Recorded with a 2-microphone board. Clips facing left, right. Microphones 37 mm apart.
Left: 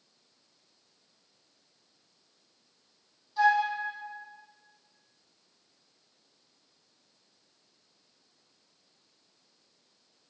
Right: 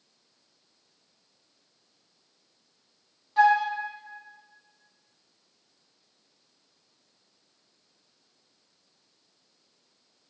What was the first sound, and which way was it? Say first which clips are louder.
A flute: right 4 dB; 55° right (ahead or behind).